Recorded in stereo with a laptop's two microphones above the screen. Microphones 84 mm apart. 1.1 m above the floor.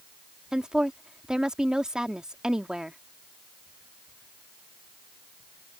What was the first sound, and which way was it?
A woman speaking, 10° right (ahead or behind).